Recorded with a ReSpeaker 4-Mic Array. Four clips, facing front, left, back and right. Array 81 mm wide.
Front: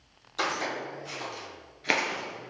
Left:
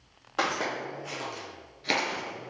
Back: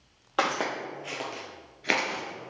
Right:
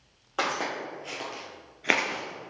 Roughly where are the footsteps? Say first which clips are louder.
Even, back 3 dB; behind.